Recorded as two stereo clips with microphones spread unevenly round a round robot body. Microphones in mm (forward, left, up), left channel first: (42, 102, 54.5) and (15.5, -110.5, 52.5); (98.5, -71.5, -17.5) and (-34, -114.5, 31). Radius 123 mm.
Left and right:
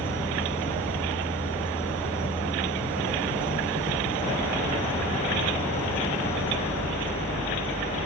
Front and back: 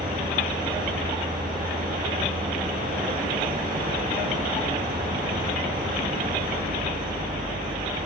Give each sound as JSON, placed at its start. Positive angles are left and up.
{"t": 0.0, "sound": "an insect", "azimuth_deg": 165, "distance_m": 2.5}